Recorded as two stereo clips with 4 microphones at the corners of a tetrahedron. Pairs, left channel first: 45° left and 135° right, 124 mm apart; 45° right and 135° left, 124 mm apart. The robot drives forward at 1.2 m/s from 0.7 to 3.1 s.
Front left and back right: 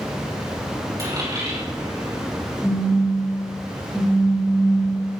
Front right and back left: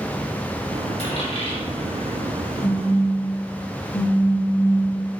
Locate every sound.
1.0 s a dropped coin: 70° right, 4 m; by 2.2 s 90° right, 4 m
2.6 s a phone buzzing: 40° right, 3 m; by 5.0 s 50° right, 2.5 m